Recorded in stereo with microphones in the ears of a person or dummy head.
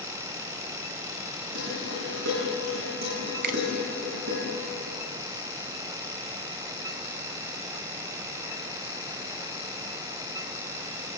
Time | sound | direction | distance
1.6 | dishes clattering | 65° right (ahead or behind) | 10 m
3.4 | a finger snap | 50° right (ahead or behind) | 1.1 m